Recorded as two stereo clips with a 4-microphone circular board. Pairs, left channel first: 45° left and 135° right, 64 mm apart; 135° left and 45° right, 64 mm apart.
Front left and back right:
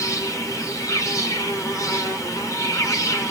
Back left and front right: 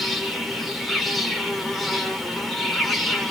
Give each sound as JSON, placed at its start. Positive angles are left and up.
{"t": 0.0, "sound": "an insect", "azimuth_deg": 45, "distance_m": 2.5}